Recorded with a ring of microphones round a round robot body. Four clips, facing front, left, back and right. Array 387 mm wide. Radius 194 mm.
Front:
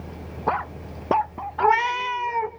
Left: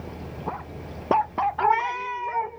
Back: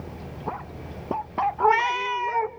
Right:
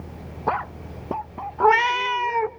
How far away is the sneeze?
I don't hear a sneeze.